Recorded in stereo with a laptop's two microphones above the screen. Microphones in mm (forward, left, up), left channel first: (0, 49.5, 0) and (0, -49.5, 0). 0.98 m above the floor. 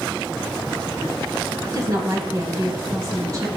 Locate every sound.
1.7 s a woman speaking: 40° right (ahead or behind), 4.5 m